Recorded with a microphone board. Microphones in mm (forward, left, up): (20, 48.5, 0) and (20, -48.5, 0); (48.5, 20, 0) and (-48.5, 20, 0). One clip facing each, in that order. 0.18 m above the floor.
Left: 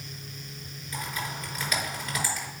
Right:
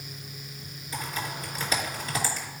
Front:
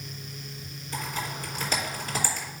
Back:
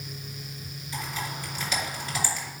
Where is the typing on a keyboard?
35° right, 3 m.